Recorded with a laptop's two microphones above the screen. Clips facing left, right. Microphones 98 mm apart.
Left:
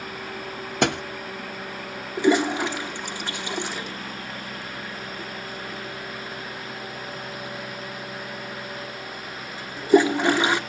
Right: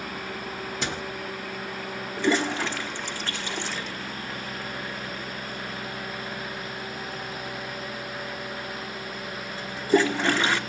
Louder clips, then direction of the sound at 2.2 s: Left 5 dB; 15° left (ahead or behind).